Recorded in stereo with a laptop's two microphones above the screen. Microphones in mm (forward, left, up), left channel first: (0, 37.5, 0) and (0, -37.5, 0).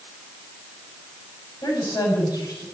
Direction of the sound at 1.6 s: 65° left (ahead or behind).